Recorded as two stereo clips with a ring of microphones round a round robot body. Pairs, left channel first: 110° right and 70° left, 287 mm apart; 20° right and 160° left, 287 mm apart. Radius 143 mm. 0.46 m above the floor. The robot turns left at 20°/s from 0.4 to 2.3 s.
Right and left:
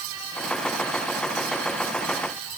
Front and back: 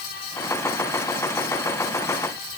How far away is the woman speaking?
No woman speaking in this recording.